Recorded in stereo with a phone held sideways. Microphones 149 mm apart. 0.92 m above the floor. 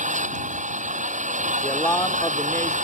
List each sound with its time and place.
0.0 s an engine running: 60° right (ahead or behind)
1.6 s a man speaking: 15° left (ahead or behind)